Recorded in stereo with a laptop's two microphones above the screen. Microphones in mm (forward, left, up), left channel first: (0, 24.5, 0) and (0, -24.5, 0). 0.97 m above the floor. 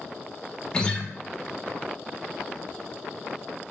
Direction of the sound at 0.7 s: 20° left (ahead or behind).